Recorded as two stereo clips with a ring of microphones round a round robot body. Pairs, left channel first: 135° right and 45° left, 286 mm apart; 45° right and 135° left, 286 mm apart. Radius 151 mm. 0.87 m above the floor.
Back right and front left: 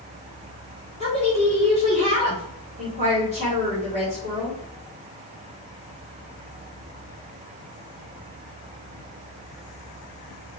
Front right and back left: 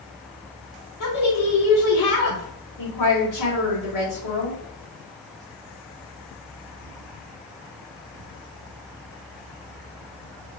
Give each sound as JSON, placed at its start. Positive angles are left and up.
{"t": 1.0, "sound": "a woman speaking", "azimuth_deg": -25, "distance_m": 3.0}